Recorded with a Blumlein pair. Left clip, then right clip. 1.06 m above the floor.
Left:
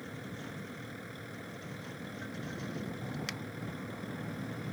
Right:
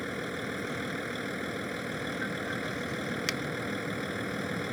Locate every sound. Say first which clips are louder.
0.0 s a vehicle: right 10 dB; 30° right
3.3 s a finger snap: right 8 dB; 70° right